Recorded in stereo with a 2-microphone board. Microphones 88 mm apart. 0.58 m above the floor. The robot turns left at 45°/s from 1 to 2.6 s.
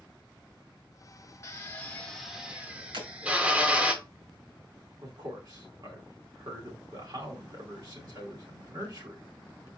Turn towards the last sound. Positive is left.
turn(degrees=-55)  # may be behind; listen again after turning